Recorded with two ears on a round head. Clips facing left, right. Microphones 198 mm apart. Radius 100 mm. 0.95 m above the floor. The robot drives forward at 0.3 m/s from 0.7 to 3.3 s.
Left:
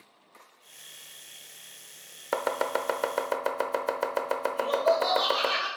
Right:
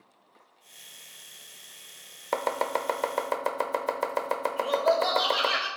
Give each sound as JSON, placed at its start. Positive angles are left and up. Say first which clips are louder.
{"t": 2.3, "sound": "chopping", "louder": "even", "side_deg": 5, "distance_m": 0.6}
{"t": 4.6, "sound": "laughter", "louder": "even", "side_deg": -15, "distance_m": 4.5}